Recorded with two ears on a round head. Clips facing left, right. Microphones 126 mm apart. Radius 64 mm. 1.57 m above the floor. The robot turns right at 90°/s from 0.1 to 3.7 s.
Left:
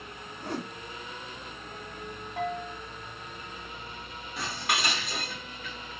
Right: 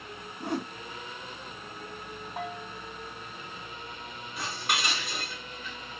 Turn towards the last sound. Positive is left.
turn(degrees=60)  # may be behind; listen again after turning